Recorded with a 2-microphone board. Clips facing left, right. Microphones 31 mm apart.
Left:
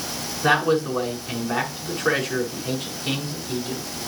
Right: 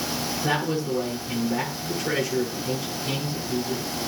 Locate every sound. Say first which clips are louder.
0.4 s a man speaking: left 7 dB; 65° left (ahead or behind), 5.5 m